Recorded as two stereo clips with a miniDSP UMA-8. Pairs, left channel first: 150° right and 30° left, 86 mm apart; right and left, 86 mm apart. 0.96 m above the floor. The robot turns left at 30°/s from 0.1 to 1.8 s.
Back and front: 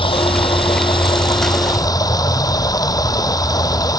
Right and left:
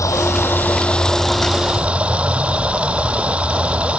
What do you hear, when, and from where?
0.0 s running water: 145° right; by 4.0 s 165° left